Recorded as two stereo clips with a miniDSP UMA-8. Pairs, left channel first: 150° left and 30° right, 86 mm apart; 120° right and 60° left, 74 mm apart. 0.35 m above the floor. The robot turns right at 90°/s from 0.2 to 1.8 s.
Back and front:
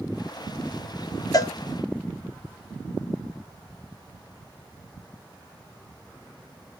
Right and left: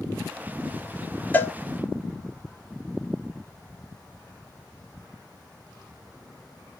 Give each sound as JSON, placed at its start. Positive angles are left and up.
{"t": 1.3, "sound": "a cowbell", "azimuth_deg": 180, "distance_m": 0.5}